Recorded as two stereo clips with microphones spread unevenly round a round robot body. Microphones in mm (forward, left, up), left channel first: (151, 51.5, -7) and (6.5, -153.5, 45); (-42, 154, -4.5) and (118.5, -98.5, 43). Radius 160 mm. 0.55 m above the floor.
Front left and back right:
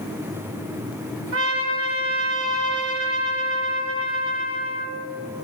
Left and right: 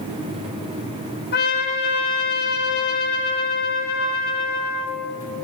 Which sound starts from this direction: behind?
A trumpet, at 1.3 s.